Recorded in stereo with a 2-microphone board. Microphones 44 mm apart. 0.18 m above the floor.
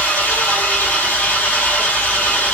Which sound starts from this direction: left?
An engine running, at 0.0 s.